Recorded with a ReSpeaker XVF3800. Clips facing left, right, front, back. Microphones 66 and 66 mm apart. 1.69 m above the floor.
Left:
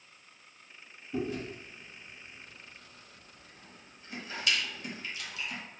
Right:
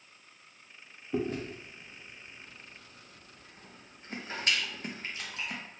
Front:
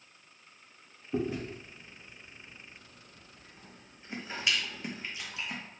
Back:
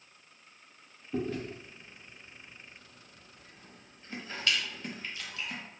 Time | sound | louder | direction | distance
1.1 | chewing | right 2 dB, front 1 dB | 65° right | 0.7 m